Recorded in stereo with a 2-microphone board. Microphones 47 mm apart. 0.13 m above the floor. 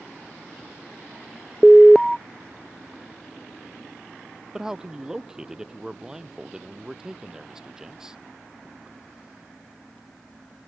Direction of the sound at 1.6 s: 5° left (ahead or behind).